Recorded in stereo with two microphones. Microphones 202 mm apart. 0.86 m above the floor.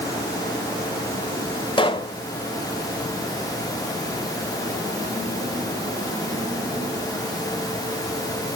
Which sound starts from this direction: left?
A pop, at 1.8 s.